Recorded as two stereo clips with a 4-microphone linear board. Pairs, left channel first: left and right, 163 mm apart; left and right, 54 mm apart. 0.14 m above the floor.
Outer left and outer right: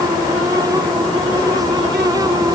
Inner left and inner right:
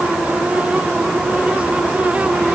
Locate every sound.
Only background noise.